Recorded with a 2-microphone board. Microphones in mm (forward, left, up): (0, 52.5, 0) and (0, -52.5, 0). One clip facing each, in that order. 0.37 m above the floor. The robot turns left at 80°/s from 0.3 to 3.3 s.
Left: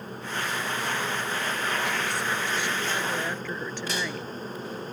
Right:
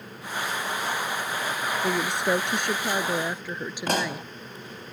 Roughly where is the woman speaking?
Ahead right.